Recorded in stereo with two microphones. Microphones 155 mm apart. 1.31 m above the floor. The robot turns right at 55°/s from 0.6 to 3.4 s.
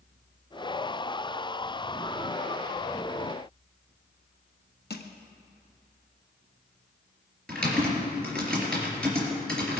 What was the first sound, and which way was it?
Crushing, 75° left (ahead or behind).